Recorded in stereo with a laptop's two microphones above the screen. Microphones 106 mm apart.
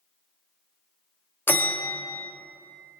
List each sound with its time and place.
1.5 s a bell: 20° left (ahead or behind), 0.6 m